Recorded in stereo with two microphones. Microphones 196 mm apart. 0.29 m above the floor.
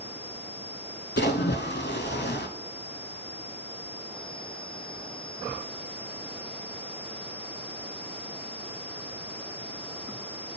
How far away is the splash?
About 0.6 m.